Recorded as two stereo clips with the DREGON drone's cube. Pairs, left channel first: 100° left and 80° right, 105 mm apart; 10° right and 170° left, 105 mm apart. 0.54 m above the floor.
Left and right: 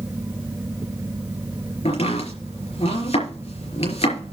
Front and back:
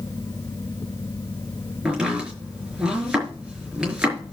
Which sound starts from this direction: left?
Chopping, at 1.9 s.